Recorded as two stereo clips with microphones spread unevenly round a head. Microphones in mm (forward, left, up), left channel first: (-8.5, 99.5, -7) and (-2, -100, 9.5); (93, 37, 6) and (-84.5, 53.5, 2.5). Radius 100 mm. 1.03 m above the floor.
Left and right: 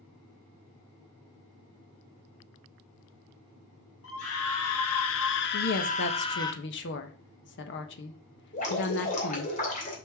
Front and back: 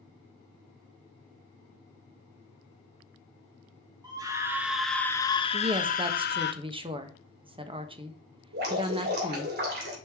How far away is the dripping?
About 2.5 m.